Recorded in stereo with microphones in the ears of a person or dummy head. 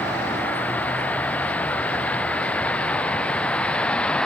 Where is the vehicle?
10° left (ahead or behind); by 4.3 s 5° left (ahead or behind).